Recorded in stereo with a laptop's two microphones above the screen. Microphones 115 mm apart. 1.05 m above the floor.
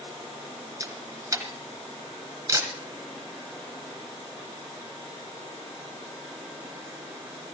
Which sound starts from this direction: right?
A camera shutter, at 0.8 s.